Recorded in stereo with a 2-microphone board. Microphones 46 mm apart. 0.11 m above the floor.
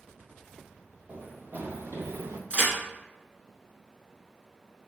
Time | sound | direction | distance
1.1 | running footsteps | 30° right (ahead or behind) | 1.3 m
2.5 | a crack | 25° right (ahead or behind) | 1.6 m